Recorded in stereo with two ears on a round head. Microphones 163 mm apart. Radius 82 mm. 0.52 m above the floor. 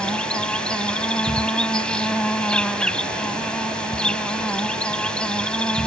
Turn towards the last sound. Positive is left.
turn(degrees=5)  # may be behind; listen again after turning